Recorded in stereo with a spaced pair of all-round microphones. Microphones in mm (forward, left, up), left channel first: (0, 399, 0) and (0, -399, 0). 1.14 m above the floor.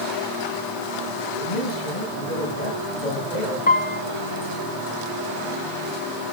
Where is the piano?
15° left (ahead or behind), 0.6 m.